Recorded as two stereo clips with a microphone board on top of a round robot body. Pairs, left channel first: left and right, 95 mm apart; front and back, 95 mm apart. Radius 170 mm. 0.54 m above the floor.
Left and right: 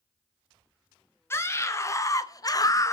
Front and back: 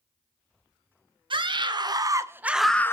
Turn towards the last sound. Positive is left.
turn(degrees=50)